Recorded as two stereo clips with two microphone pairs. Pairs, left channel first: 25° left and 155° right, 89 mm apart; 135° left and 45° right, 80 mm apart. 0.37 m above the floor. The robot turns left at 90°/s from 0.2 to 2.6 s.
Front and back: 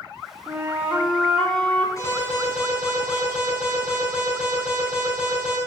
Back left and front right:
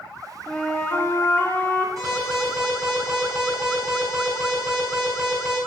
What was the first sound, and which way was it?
A flute, 155° right.